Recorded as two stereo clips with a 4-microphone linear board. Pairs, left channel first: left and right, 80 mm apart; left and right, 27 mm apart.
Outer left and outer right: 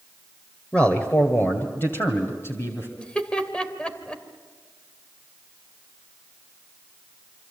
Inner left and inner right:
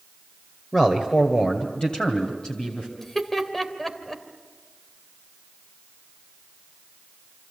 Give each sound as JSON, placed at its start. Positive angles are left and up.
{"t": 0.7, "sound": "a man speaking", "side_deg": 15, "distance_m": 1.6}
{"t": 3.0, "sound": "laughter", "side_deg": 15, "distance_m": 2.5}